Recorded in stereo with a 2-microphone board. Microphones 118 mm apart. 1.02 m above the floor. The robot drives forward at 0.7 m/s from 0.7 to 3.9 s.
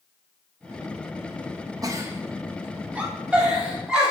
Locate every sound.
1.8 s a giggle: 30° right (ahead or behind), 0.6 m; by 4.1 s 10° right (ahead or behind), 2.0 m